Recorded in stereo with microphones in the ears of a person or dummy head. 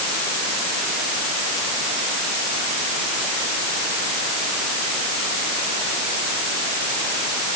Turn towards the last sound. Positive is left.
No sound to turn to.